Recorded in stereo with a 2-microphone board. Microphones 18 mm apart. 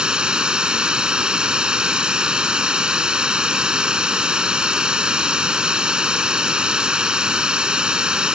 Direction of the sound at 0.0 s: 70° right (ahead or behind).